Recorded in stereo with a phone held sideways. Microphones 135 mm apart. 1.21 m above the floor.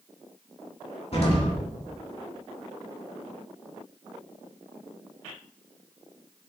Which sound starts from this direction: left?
An explosion, at 1.1 s.